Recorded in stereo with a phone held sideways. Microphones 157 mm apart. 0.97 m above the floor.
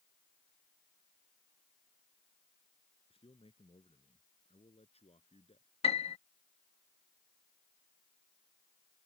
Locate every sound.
3.1 s a man speaking: 40° left (ahead or behind); by 5.7 s 45° left (ahead or behind)
5.8 s a piano: 40° left (ahead or behind)